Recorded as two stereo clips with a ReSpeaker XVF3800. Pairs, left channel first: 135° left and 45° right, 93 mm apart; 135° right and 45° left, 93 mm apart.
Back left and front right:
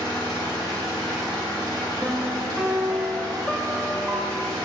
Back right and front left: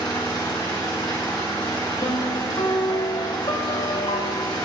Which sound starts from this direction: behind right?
A piano, at 2.0 s.